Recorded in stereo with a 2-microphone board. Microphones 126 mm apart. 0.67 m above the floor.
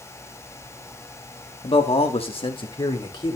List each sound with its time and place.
1.6 s a man speaking: 40° left (ahead or behind), 1.5 m; by 3.4 s 30° left (ahead or behind), 3 m